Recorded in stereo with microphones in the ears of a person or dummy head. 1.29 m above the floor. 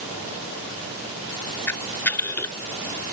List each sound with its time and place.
1.7 s a camera shutter: 10° left (ahead or behind)